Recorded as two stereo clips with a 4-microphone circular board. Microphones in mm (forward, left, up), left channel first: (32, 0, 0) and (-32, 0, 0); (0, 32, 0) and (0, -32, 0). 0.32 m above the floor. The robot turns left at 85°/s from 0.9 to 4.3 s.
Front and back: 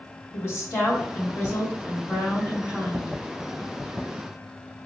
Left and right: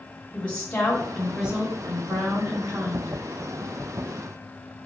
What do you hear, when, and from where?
0.3 s a woman speaking: 25° left, 1.7 m; by 3.1 s 165° right, 1.7 m